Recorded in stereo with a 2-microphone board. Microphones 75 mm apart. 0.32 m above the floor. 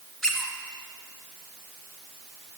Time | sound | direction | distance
0.2 | a squeak | 5° left (ahead or behind) | 1.4 m